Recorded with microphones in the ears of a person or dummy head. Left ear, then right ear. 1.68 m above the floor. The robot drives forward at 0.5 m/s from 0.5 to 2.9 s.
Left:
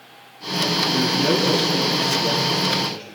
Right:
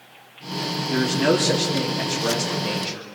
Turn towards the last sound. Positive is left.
turn(degrees=-30)  # may be behind; listen again after turning